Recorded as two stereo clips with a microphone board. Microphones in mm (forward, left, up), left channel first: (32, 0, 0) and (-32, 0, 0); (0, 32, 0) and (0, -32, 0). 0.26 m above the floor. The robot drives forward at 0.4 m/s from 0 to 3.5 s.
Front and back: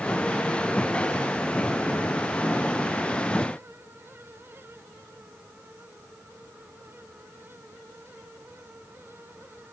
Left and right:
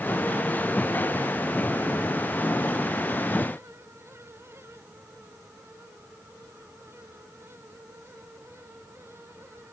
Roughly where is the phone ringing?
No phone ringing in this recording.